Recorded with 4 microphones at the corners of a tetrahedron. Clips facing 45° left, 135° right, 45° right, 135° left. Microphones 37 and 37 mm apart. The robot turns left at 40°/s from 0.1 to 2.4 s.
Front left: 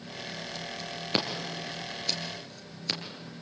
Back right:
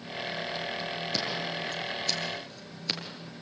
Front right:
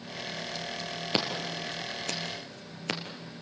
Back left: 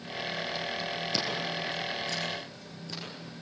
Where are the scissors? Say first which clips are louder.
Front left 3 dB, front right 4 dB; 5° left, 3.5 m; by 3.0 s 45° right, 3.5 m.